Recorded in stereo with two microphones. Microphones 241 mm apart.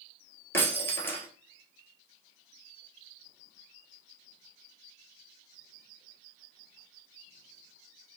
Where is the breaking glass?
10° left (ahead or behind), 1.1 m.